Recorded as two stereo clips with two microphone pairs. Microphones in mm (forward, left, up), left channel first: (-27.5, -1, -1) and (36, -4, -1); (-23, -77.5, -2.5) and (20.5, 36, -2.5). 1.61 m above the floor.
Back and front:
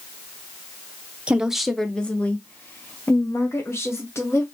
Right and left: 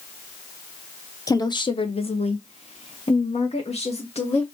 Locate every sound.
1.3 s a woman speaking: 65° right, 0.6 m; by 4.4 s 140° right, 2.0 m